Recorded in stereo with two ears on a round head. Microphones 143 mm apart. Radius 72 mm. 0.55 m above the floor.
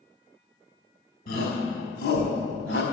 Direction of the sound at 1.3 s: 65° left (ahead or behind).